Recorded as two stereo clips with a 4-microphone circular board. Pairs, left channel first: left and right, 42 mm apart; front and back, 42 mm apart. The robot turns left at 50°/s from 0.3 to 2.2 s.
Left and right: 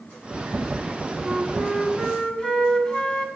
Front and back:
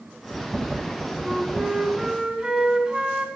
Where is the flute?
175° right, 1.4 m; by 3.3 s 135° left, 1.4 m.